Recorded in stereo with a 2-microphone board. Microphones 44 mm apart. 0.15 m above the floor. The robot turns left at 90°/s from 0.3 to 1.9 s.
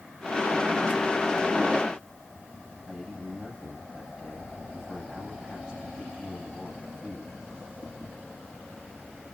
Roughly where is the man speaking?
Right.